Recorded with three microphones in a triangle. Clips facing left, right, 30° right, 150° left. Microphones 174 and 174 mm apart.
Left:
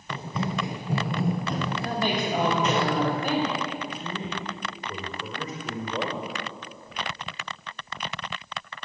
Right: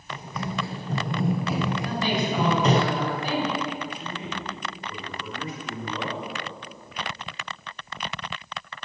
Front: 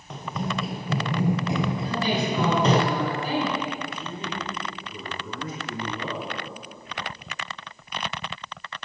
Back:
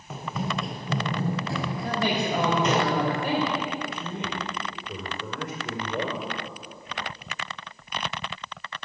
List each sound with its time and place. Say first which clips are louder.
0.1 s running footsteps: left 2 dB, front 1 dB; 70° left, 1.3 m; by 2.8 s 65° right, 1.4 m
1.8 s a woman speaking: right 1 dB, front 1 dB; 125° left, 4 m
3.8 s a man speaking: left 1 dB, back 1 dB; 135° left, 5 m